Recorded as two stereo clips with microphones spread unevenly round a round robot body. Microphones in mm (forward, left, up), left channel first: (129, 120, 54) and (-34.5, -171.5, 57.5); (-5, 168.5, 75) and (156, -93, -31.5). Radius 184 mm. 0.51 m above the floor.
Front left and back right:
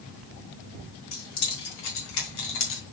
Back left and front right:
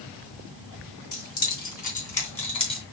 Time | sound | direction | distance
1.1 | keys jangling | 60° left | 3 m